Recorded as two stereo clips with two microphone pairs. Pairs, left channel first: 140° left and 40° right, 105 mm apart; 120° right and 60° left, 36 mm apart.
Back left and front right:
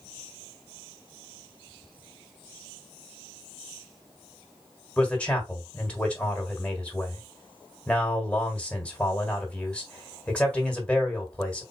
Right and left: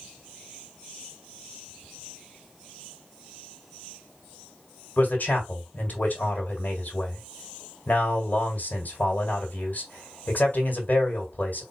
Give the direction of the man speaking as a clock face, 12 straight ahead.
5 o'clock.